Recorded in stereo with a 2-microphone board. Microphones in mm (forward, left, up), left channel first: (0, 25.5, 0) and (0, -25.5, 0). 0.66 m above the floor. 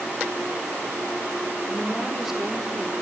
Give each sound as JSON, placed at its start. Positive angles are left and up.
{"t": 1.7, "sound": "a woman speaking", "side_deg": -10, "distance_m": 2.0}